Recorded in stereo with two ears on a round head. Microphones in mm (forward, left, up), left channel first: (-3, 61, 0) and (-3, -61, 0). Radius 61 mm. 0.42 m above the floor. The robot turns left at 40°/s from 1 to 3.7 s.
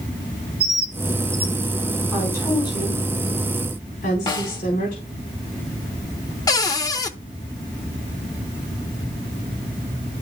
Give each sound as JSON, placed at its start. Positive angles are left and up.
{"t": 0.6, "sound": "a bird", "side_deg": -5, "distance_m": 1.5}
{"t": 2.1, "sound": "a woman speaking", "side_deg": 15, "distance_m": 3.5}
{"t": 4.3, "sound": "a snare drum", "side_deg": 35, "distance_m": 2.0}
{"t": 6.5, "sound": "a cupboard door", "side_deg": 25, "distance_m": 0.8}